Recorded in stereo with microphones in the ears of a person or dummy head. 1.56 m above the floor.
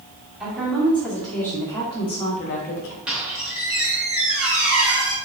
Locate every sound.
0.4 s a woman speaking: centre (ahead or behind), 1.4 m; by 3.0 s 65° left (ahead or behind), 0.7 m
3.1 s a squeak: 5° right (ahead or behind), 0.8 m